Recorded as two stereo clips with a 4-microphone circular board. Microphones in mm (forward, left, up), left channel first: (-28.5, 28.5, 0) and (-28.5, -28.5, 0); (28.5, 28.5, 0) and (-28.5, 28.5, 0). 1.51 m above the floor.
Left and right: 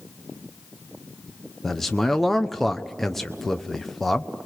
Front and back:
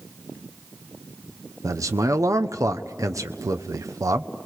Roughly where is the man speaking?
Behind.